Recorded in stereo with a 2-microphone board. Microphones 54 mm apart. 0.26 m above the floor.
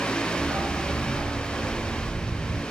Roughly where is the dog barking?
Right.